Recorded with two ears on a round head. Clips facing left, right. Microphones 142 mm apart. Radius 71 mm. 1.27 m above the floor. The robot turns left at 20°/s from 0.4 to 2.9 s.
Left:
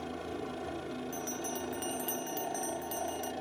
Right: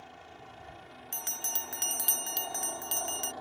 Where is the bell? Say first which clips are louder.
Left 7 dB; 115° right; by 3.3 s 150° right.